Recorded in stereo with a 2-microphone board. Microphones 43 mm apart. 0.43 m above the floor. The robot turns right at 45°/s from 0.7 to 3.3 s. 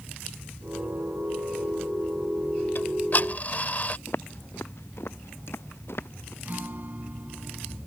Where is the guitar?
45° right (ahead or behind).